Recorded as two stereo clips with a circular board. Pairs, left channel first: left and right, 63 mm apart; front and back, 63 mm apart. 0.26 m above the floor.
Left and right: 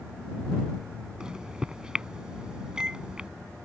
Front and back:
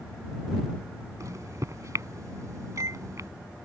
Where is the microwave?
165° right.